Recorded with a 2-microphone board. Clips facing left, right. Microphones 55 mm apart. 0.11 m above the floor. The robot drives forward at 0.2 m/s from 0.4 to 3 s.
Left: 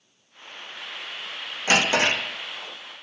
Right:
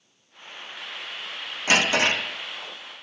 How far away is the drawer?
About 1.5 m.